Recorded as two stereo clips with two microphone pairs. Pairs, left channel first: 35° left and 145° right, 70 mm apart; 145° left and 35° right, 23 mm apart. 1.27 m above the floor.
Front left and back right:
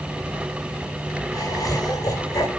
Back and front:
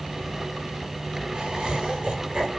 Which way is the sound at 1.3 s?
10° left.